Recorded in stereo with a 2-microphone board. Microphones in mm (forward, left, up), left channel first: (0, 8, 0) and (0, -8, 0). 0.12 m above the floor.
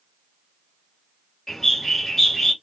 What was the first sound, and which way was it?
A bird, 15° left (ahead or behind).